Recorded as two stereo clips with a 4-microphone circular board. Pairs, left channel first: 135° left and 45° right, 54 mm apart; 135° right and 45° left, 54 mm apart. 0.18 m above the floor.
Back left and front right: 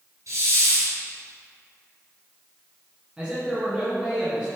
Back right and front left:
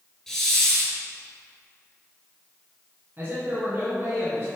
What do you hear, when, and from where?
0.3 s a hiss: 50° right, 2 m
3.2 s a man speaking: 20° left, 2.0 m